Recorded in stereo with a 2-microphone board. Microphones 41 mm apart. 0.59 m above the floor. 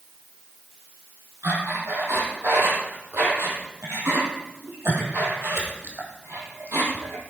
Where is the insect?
I don't hear an insect.